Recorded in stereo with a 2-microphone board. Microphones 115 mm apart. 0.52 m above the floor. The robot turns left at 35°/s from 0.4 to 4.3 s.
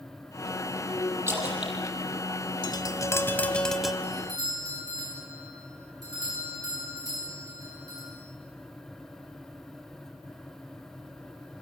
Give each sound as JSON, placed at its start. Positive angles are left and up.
{"t": 1.3, "sound": "a splash", "side_deg": -20, "distance_m": 6.5}
{"t": 2.6, "sound": "tapping", "azimuth_deg": 40, "distance_m": 1.4}
{"t": 4.0, "sound": "a doorbell", "side_deg": -40, "distance_m": 9.0}